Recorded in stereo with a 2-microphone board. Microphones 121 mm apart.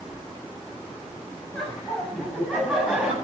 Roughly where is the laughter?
Centre.